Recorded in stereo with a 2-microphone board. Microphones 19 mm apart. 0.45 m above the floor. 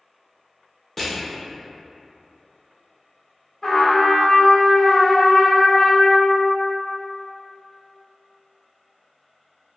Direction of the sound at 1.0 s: 15° left (ahead or behind).